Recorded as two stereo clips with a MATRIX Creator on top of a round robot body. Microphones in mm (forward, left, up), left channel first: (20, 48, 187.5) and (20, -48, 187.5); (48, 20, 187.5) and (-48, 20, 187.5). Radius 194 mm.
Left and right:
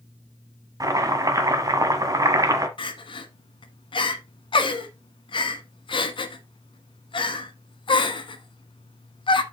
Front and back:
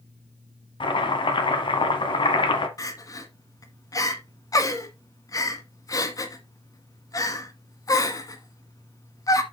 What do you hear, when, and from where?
0.8 s chopping: 35° right, 1.3 m
2.8 s crying: 55° left, 1.1 m